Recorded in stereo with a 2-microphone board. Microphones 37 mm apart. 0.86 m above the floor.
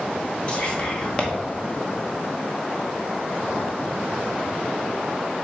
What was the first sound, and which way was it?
Whispering, 25° left (ahead or behind).